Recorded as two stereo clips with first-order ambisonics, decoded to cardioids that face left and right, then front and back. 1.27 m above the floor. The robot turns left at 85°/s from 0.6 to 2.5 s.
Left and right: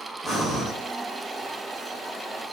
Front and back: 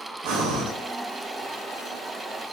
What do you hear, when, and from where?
0.2 s breathing: straight behind, 0.7 m; by 0.7 s 170° left, 0.7 m